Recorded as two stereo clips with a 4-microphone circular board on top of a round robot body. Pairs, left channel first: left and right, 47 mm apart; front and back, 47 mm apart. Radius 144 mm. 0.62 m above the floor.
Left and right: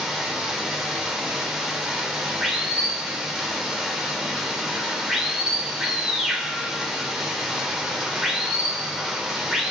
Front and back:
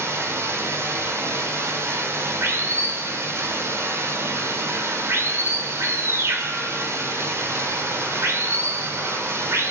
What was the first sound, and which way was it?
Running water, 170° right.